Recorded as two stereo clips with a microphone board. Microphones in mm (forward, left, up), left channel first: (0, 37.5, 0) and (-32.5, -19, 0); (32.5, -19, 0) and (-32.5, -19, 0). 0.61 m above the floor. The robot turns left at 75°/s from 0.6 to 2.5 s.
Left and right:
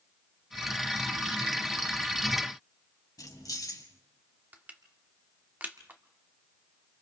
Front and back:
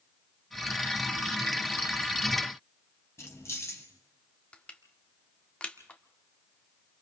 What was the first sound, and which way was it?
Keys jangling, 45° left.